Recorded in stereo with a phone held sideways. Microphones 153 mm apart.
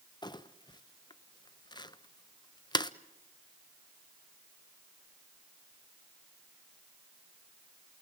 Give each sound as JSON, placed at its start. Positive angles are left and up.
{"t": 0.2, "sound": "crumpling", "side_deg": 30, "distance_m": 0.6}